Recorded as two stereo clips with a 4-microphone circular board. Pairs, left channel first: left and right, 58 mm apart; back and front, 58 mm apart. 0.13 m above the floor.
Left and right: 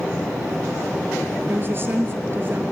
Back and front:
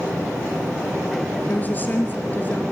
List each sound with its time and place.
1.5 s a woman speaking: 130° right, 2.5 m